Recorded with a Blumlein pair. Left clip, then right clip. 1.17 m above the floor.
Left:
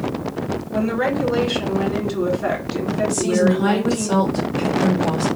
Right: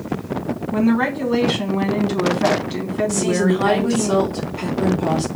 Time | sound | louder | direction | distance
0.7 | a woman speaking | right 1 dB | 60° right | 2.0 m
3.1 | a woman speaking | left 2 dB | 65° right | 2 m